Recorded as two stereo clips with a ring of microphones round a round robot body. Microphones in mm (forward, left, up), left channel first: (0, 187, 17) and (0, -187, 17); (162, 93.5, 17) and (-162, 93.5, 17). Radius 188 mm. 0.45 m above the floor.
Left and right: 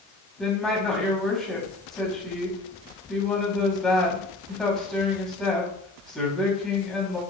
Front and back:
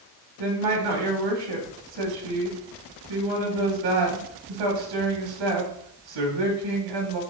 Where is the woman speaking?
Straight behind, 3 m.